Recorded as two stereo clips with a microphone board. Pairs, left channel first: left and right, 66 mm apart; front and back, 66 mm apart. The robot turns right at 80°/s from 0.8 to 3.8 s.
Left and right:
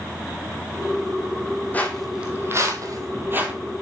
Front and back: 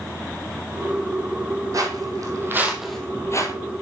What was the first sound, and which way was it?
Footsteps, 150° left.